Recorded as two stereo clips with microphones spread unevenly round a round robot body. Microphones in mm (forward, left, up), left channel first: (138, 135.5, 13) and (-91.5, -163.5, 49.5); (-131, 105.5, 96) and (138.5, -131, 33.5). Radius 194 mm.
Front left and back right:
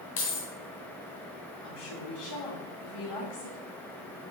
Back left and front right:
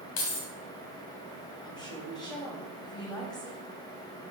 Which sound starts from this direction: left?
Keys jangling, at 0.2 s.